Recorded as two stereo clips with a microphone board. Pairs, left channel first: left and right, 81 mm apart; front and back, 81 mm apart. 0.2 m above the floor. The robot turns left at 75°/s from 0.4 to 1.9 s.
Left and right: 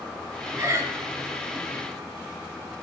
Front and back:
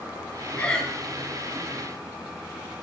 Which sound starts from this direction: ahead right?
Breathing, at 0.6 s.